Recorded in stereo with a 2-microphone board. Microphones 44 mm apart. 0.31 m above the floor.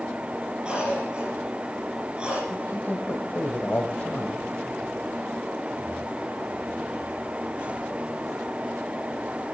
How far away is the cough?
About 6 m.